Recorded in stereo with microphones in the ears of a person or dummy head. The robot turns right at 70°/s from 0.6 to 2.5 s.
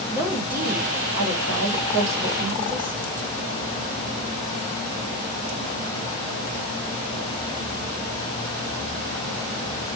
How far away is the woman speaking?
About 1.1 m.